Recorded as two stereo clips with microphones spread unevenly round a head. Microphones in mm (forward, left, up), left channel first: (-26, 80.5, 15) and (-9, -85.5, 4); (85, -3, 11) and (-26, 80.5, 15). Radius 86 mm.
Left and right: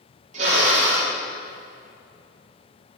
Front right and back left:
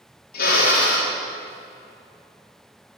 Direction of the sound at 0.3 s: 35° right.